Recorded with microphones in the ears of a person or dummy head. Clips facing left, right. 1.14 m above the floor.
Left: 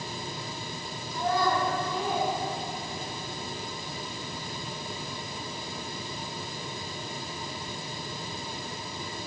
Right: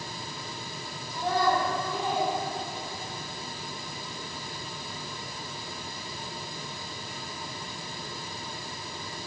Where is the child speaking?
15° right (ahead or behind), 0.6 m; by 3.2 s 75° right (ahead or behind), 1.2 m.